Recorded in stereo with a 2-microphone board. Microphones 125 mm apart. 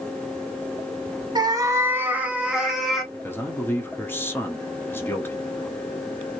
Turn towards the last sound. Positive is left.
turn(degrees=15)  # may be behind; listen again after turning